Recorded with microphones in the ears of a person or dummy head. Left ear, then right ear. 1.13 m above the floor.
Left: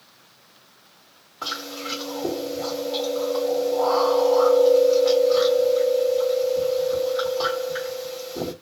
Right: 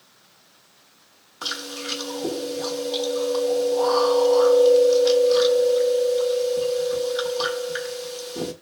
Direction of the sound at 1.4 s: 40° right (ahead or behind).